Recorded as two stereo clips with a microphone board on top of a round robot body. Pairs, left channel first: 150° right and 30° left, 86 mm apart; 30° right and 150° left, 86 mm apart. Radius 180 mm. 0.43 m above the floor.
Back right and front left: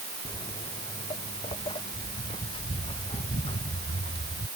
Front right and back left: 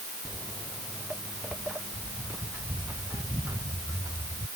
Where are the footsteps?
120° right; by 4.5 s 150° right.